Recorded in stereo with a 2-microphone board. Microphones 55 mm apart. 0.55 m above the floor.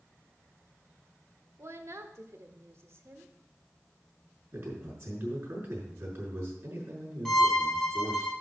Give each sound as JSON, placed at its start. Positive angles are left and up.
{"t": 1.6, "sound": "a woman speaking", "side_deg": -55, "distance_m": 1.3}
{"t": 4.5, "sound": "a man speaking", "side_deg": -50, "distance_m": 5.5}
{"t": 7.2, "sound": "a violin", "side_deg": 5, "distance_m": 1.6}